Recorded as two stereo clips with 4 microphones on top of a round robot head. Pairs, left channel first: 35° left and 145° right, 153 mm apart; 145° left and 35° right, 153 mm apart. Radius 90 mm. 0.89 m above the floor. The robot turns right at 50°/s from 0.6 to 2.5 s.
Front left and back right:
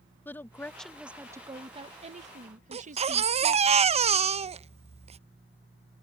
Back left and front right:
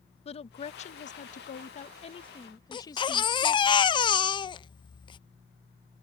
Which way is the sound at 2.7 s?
170° right.